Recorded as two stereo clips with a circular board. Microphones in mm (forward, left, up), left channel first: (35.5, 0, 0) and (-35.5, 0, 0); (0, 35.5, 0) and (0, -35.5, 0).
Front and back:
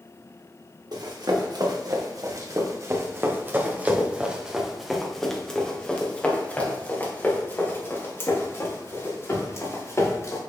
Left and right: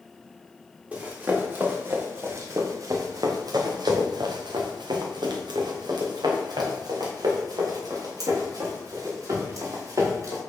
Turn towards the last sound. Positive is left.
turn(degrees=-45)